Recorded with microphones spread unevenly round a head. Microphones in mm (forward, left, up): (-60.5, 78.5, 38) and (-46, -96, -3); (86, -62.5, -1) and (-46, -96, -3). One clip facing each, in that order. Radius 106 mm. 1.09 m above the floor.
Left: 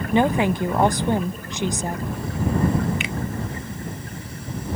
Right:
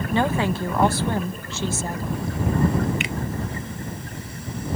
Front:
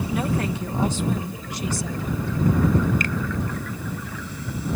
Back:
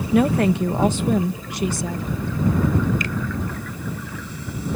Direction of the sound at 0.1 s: 175° left.